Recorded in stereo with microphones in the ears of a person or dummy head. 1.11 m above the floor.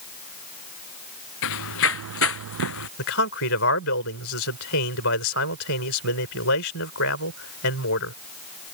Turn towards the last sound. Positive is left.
turn(degrees=65)  # may be behind; listen again after turning